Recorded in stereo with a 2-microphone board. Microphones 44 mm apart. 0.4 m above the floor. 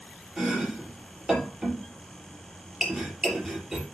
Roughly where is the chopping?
Centre.